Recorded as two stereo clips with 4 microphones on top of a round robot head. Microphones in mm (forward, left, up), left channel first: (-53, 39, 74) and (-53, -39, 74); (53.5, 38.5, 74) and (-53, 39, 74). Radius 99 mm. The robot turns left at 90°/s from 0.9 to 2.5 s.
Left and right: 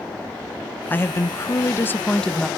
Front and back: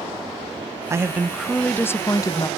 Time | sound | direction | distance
0.9 | a woman speaking | 140° left | 0.7 m